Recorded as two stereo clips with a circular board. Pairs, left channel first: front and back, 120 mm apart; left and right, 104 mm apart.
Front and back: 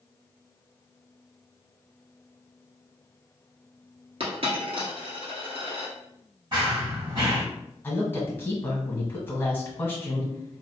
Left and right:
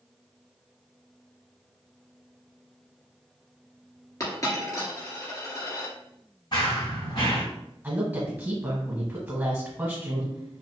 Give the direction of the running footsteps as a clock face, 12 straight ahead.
8 o'clock.